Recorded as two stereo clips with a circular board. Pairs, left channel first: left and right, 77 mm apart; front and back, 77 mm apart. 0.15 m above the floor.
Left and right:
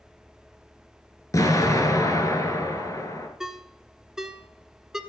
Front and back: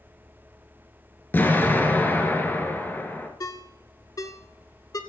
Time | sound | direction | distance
1.3 | an explosion | 60° left | 2 m
3.4 | a ringtone | 10° right | 1.2 m